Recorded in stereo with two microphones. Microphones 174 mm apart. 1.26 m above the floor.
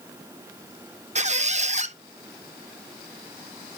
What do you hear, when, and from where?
1.1 s a squeak: 40° right (ahead or behind), 0.8 m